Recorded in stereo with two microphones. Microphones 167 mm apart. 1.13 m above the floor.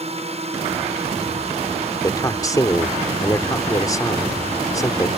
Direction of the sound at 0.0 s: 40° right (ahead or behind).